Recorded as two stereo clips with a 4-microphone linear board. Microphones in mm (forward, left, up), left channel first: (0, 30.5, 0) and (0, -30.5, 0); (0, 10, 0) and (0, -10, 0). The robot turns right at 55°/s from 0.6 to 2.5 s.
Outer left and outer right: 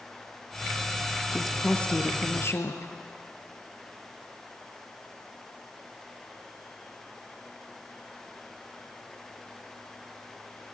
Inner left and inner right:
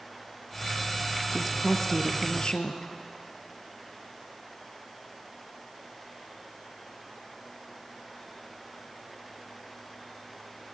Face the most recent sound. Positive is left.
turn(degrees=60)